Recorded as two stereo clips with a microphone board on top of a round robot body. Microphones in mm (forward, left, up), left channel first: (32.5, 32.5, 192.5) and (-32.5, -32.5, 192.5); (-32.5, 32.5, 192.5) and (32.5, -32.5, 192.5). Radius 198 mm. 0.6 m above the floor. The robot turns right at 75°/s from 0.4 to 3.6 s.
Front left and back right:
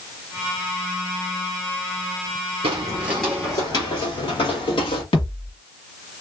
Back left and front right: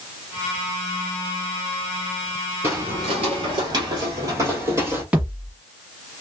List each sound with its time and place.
2.6 s footsteps: 110° right, 1.0 m; by 5.0 s 20° left, 1.7 m
5.1 s a thud: 35° left, 1.5 m